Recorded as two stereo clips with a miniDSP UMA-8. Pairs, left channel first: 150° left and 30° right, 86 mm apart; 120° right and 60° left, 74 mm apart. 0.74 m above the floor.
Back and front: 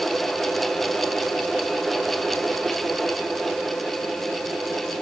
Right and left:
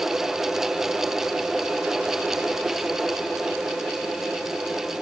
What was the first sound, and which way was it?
Only background noise.